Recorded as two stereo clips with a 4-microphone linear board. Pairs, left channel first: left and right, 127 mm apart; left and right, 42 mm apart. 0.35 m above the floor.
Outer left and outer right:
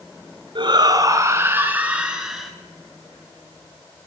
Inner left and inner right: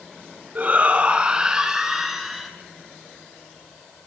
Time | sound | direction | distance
0.6 | a shout | 40° right (ahead or behind) | 3 m